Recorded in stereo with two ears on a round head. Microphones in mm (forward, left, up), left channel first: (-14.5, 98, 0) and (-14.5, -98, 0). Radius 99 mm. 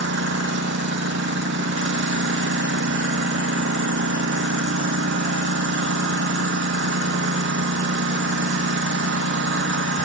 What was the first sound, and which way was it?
A lawn mower, 60° right (ahead or behind).